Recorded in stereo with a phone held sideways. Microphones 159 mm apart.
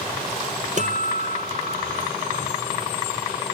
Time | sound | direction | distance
0.8 | a guitar | 50° right (ahead or behind) | ?